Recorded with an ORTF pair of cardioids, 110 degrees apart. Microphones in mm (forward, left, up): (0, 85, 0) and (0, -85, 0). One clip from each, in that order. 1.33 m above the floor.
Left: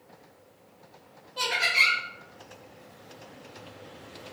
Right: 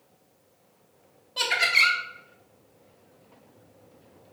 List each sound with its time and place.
1.4 s laughter: 35° right, 0.6 m